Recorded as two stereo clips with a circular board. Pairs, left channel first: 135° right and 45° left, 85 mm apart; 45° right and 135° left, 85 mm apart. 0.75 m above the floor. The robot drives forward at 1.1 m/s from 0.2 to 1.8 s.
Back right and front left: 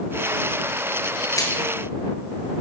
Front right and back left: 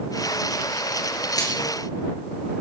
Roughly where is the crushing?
Right.